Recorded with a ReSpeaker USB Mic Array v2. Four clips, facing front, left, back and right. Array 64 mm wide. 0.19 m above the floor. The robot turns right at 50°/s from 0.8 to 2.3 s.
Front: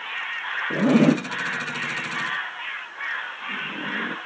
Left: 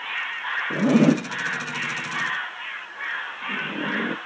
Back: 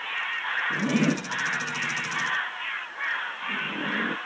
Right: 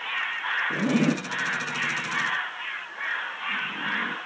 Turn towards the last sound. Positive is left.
turn(degrees=95)